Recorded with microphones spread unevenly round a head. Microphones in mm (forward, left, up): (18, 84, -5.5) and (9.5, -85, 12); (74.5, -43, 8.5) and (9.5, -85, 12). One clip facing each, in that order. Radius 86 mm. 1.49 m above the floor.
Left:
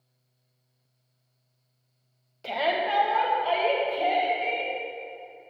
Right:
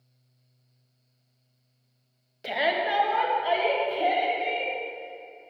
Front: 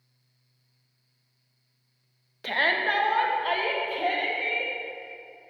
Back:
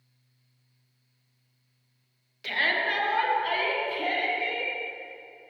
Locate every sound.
2.4 s a shout: 20° right, 1.0 m; by 4.7 s 10° right, 3 m